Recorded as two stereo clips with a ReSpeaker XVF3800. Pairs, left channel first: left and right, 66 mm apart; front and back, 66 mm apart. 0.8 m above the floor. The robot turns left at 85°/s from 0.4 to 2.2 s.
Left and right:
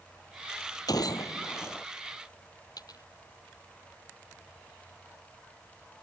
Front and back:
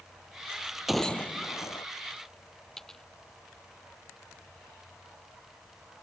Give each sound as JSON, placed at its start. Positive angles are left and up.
{"t": 0.9, "sound": "a gunshot", "azimuth_deg": 95}
{"t": 2.8, "sound": "a dropped coin", "azimuth_deg": 85}